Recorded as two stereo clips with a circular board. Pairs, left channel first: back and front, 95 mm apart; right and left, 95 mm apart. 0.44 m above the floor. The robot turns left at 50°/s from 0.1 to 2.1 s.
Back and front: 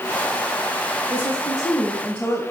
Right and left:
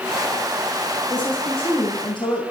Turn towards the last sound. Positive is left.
turn(degrees=-100)